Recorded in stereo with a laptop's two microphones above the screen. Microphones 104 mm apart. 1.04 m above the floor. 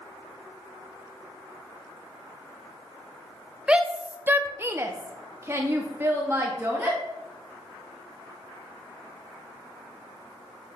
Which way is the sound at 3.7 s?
10° right (ahead or behind).